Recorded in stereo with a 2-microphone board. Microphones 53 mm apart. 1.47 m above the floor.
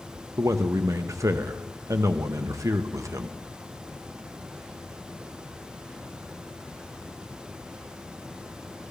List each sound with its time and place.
0.4 s a man speaking: 70° right (ahead or behind), 0.7 m